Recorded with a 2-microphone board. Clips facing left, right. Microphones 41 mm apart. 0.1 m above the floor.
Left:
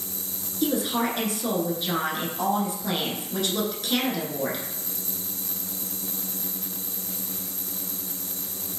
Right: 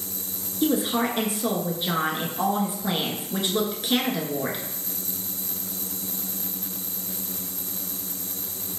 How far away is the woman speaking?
About 1.1 m.